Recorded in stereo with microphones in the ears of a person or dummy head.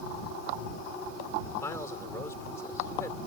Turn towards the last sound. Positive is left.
turn(degrees=15)  # may be behind; listen again after turning